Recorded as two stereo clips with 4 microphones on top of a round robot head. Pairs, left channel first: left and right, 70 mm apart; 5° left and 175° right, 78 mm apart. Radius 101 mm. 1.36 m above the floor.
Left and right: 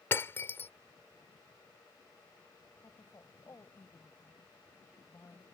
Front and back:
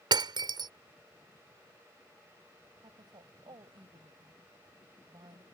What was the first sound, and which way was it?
Breaking glass, 155° left.